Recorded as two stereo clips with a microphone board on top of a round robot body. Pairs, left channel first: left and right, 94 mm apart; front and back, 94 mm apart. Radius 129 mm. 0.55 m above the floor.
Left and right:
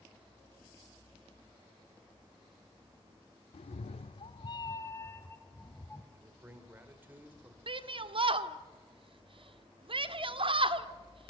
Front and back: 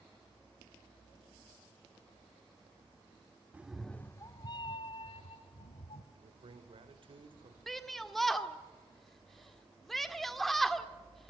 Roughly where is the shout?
Right.